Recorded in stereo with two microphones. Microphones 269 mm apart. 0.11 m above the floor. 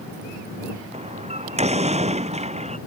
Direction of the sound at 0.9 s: 25° right (ahead or behind).